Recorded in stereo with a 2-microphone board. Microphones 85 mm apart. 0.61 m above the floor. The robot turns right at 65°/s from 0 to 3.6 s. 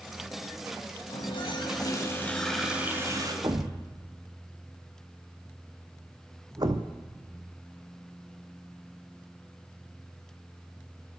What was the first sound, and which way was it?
A running tap, 85° left.